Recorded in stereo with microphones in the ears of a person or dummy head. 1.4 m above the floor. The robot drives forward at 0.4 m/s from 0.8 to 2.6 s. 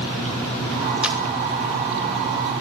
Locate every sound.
1.0 s a camera shutter: centre (ahead or behind), 2.5 m